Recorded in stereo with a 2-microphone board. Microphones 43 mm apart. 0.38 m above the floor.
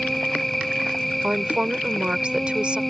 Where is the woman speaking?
25° right (ahead or behind).